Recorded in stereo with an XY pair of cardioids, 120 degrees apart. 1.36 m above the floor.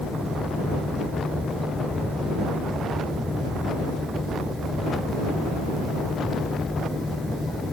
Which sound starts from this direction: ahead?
A fan, at 0.0 s.